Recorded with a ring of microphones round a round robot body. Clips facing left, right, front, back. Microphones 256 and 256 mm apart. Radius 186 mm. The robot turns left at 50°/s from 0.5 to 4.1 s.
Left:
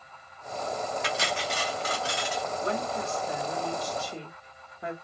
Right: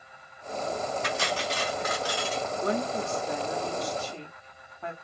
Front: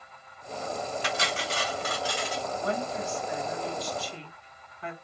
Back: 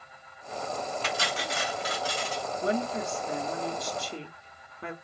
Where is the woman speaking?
125° right, 1.4 m; by 4.9 s 160° left, 1.4 m.